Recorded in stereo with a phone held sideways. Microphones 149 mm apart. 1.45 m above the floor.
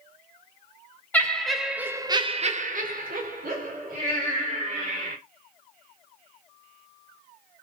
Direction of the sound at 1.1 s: 10° left (ahead or behind).